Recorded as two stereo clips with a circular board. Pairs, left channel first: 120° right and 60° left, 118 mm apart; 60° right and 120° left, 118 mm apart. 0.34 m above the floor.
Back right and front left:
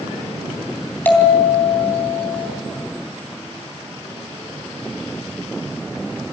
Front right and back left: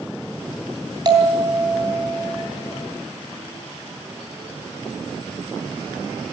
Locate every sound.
1.1 s a bell: 170° left, 3 m